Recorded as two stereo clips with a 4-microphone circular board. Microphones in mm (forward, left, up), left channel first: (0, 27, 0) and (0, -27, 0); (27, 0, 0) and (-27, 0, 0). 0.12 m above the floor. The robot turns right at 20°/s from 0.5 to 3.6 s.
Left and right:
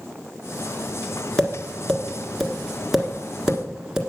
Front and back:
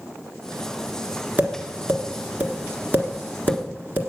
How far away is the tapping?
About 1.6 m.